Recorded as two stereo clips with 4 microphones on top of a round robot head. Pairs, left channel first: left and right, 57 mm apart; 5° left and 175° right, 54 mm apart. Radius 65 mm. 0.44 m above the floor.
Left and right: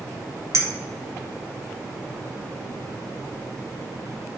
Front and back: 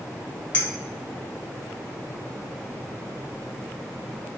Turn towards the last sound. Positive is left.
turn(degrees=-65)